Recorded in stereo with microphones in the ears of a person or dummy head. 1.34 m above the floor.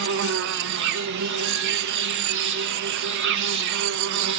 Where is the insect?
60° right (ahead or behind), 0.9 m.